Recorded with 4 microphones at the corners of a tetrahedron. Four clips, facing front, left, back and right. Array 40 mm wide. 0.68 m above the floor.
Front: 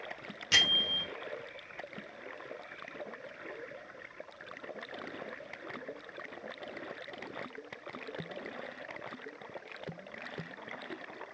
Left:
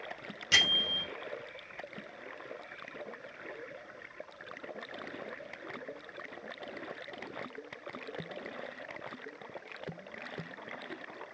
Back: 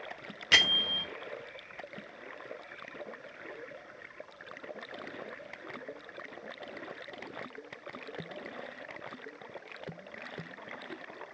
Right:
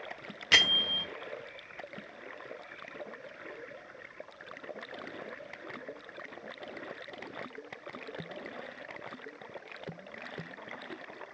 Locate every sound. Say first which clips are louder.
0.5 s a bell: right 2 dB, back 2 dB; 135° right, 0.8 m